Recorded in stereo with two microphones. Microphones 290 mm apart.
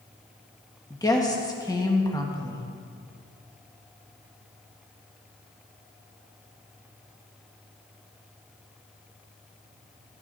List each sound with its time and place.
0.9 s a woman speaking: 15° left (ahead or behind), 1.6 m